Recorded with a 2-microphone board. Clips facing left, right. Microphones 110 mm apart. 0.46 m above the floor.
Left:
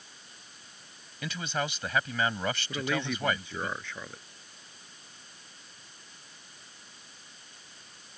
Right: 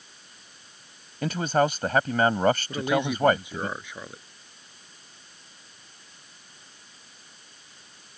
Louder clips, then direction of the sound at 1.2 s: Right 10 dB; 45° right (ahead or behind).